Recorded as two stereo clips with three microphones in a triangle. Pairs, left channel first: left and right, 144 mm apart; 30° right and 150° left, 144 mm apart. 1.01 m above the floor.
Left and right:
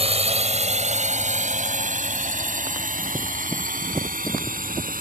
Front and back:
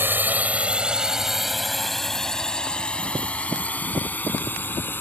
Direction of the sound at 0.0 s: 135° right.